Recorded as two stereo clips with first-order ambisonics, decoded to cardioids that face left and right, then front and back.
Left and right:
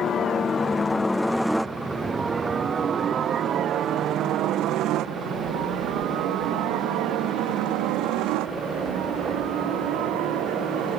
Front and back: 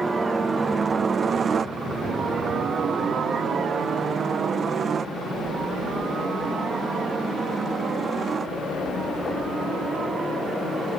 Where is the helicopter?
115° left; by 11.0 s 110° right.